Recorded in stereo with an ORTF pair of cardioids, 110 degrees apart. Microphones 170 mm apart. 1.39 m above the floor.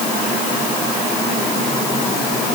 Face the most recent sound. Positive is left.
No sound to turn to.